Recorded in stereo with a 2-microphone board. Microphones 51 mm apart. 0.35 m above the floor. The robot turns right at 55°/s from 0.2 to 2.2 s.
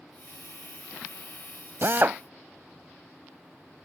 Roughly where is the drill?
Right.